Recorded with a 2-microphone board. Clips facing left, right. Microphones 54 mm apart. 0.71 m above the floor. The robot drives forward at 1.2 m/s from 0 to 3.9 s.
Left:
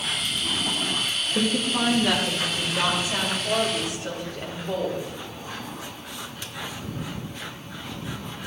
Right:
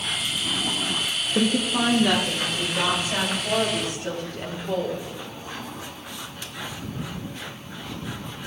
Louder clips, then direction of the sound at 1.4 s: Right 2 dB; 10° right (ahead or behind).